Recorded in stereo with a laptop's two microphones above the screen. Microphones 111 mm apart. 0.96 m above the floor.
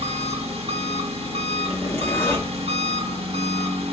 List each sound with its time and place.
0.0 s an engine running: 65° right (ahead or behind), 1.0 m
1.7 s a zipper: 20° left (ahead or behind), 1.1 m